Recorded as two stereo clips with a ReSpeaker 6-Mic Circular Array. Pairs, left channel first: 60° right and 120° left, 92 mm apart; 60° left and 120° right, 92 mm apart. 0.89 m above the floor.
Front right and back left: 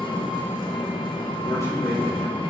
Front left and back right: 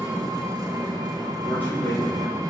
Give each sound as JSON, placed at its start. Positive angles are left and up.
{"t": 0.0, "sound": "an engine running", "azimuth_deg": -80, "distance_m": 2.0}
{"t": 1.4, "sound": "a man speaking", "azimuth_deg": -5, "distance_m": 5.5}